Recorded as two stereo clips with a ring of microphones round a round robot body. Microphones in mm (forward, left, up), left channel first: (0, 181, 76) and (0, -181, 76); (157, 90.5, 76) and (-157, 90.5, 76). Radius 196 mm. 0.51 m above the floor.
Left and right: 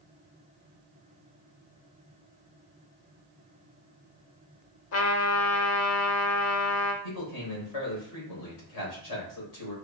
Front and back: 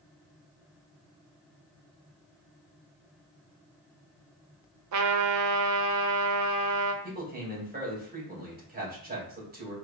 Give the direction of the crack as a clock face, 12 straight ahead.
I don't hear a crack.